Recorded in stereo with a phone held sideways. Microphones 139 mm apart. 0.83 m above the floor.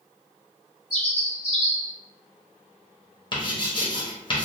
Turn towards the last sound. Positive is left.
turn(degrees=35)  # may be behind; listen again after turning